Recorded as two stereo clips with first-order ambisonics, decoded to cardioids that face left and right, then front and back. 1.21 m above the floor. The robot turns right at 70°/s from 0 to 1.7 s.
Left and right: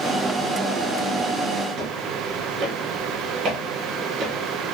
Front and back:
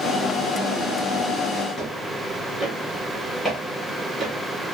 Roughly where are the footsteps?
Ahead right.